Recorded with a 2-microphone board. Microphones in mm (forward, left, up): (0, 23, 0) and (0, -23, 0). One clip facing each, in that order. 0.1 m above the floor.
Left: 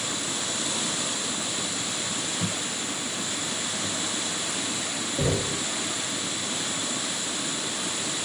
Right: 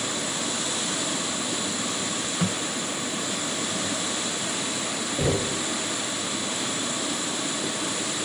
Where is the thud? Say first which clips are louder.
Right 3 dB; 60° right (ahead or behind), 3.5 m.